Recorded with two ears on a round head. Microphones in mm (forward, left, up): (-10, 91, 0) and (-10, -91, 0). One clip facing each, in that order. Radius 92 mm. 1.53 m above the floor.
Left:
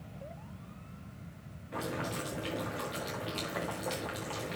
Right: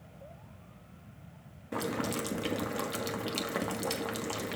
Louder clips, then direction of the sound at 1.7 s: Right 4 dB; 60° right (ahead or behind).